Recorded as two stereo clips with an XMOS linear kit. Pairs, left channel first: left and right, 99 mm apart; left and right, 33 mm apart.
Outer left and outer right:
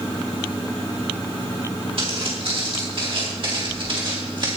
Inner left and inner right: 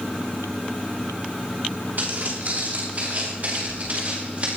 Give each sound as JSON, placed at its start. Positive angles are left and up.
{"t": 2.0, "sound": "footsteps", "side_deg": -60, "distance_m": 7.5}